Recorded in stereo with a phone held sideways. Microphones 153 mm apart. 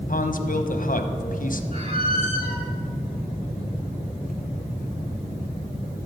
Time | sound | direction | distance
0.1 | a man speaking | 60° left (ahead or behind) | 0.9 m
1.7 | a squeak | 45° right (ahead or behind) | 2 m